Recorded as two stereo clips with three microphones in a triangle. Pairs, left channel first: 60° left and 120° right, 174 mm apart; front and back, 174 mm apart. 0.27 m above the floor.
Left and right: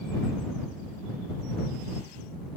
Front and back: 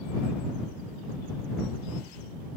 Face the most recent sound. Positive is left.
No sound to turn to.